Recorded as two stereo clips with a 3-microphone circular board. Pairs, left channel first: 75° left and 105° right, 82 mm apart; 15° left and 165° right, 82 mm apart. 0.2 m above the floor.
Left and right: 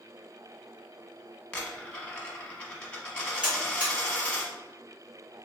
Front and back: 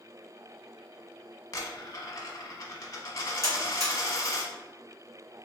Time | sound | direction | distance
1.5 | a dropped coin | 5° left | 0.8 m
3.4 | a buzzer | 175° right | 1.9 m